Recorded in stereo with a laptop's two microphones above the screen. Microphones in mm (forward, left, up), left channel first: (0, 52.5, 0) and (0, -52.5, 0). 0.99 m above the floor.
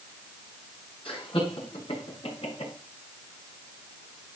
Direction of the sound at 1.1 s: 60° left (ahead or behind).